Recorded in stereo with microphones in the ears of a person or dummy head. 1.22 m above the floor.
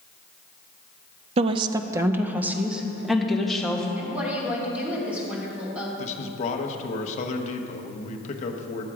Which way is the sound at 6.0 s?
45° left (ahead or behind).